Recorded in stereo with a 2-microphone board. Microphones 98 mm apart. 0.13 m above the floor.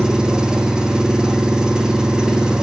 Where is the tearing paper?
I don't hear tearing paper.